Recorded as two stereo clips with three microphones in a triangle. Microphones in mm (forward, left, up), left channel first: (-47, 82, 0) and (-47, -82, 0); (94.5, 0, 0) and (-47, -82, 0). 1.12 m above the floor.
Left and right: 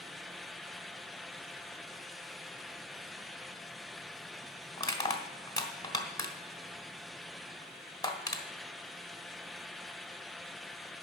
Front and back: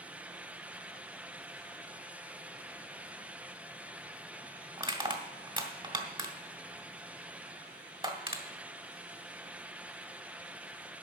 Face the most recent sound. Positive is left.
turn(degrees=155)